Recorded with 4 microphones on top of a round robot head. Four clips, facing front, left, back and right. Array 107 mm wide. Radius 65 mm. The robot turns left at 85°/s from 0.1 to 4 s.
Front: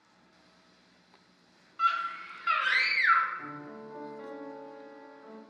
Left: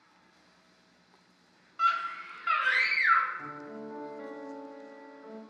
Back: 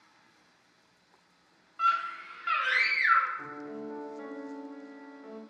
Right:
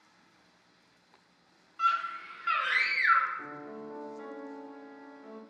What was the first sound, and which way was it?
A scream, 95° left.